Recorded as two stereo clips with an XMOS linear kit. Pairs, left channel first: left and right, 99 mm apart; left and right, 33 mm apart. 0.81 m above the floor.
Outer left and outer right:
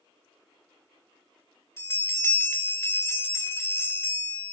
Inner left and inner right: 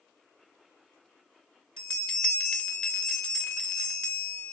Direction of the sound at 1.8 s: 25° left (ahead or behind).